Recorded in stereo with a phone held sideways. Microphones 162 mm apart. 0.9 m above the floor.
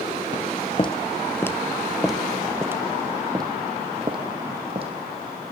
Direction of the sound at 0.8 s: 35° left (ahead or behind).